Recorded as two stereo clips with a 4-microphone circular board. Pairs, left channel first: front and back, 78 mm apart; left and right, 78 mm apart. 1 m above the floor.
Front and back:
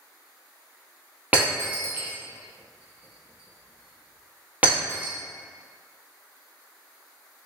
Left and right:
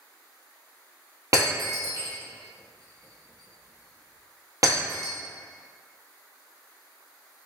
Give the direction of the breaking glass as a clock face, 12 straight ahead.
4 o'clock.